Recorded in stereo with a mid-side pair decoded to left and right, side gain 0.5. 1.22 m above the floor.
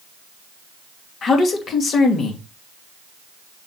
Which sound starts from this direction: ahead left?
A man speaking, at 1.2 s.